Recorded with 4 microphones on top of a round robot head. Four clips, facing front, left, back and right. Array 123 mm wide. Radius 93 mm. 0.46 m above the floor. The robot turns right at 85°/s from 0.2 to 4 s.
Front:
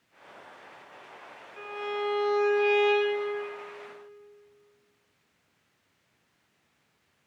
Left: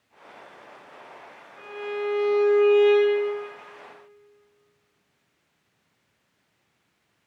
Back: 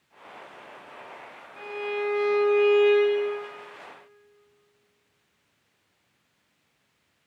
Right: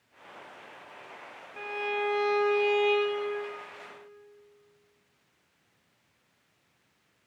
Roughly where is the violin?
Right.